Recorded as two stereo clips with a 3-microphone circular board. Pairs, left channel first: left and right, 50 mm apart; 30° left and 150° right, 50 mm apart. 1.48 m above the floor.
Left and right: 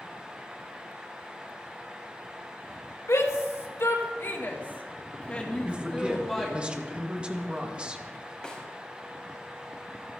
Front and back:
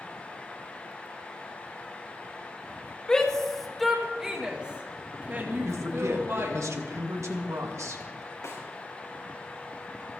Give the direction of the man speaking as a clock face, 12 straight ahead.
5 o'clock.